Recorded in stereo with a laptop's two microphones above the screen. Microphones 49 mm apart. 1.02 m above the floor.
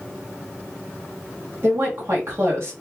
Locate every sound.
1.6 s a woman speaking: 60° right (ahead or behind), 1.6 m